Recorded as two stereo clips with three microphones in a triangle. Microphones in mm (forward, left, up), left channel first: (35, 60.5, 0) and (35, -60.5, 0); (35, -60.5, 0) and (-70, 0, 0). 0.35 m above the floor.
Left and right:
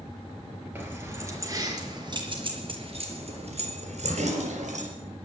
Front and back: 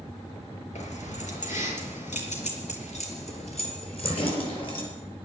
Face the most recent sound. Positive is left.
turn(degrees=-80)